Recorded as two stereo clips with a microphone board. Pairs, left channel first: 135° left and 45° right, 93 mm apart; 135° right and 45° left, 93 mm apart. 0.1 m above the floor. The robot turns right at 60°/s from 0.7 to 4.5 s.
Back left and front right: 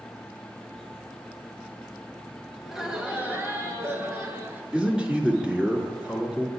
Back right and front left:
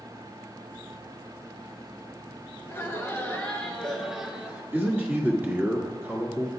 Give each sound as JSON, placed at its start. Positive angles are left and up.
{"t": 2.6, "sound": "laughter", "azimuth_deg": -130, "distance_m": 1.4}
{"t": 4.7, "sound": "a man speaking", "azimuth_deg": 20, "distance_m": 1.3}